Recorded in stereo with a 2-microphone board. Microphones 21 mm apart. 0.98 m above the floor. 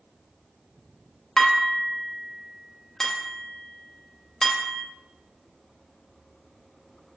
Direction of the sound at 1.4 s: 25° left (ahead or behind).